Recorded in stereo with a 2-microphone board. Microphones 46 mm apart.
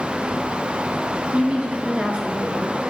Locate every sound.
1.3 s a woman speaking: 25° right (ahead or behind), 1.3 m